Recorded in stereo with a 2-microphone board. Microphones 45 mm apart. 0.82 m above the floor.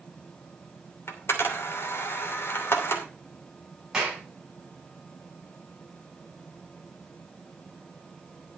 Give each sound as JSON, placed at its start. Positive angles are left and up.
{"t": 1.1, "sound": "a camera shutter", "side_deg": 55, "distance_m": 2.5}
{"t": 3.9, "sound": "a clap", "side_deg": -15, "distance_m": 7.0}